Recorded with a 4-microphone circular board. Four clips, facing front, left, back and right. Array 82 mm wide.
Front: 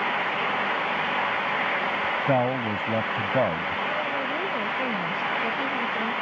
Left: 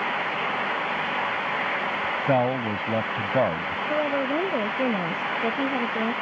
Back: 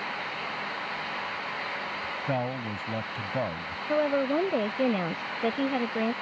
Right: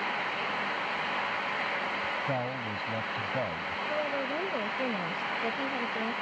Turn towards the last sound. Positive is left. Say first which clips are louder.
# left 8 dB, back 2 dB
turn(degrees=145)